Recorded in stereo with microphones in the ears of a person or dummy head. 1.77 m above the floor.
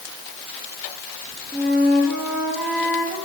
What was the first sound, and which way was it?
A flute, 5° right (ahead or behind).